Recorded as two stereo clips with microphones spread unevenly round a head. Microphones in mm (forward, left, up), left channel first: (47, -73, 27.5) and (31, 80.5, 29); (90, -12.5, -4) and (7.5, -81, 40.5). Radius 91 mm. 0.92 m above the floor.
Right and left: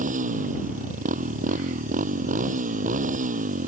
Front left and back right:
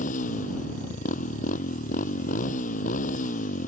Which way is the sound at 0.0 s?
55° left.